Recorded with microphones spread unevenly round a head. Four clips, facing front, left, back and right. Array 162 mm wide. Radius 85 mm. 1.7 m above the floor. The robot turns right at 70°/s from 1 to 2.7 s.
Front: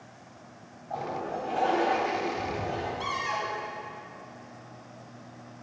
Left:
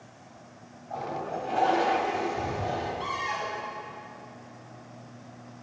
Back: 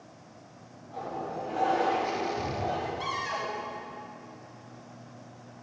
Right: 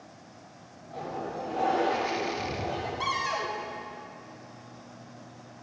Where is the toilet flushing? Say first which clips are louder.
Left 2 dB, front 3 dB; 40° left, 4 m; by 2.9 s 155° left, 4 m.